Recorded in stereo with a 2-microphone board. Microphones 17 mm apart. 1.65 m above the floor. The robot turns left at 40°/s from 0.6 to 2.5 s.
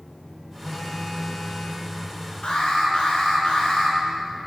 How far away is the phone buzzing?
About 4.5 m.